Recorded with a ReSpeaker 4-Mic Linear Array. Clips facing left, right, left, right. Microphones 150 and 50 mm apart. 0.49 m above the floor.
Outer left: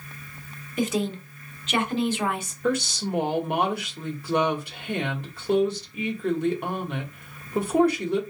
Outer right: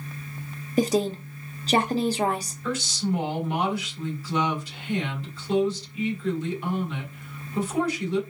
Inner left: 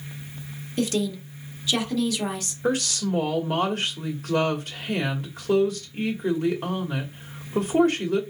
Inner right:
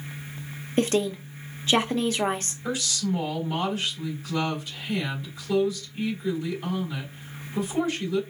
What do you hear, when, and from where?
0.8 s a woman speaking: 35° right (ahead or behind), 1.0 m
2.6 s a woman speaking: 60° left (ahead or behind), 1.8 m